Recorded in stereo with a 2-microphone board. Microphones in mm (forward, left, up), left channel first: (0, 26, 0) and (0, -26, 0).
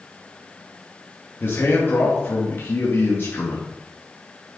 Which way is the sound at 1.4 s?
40° left (ahead or behind).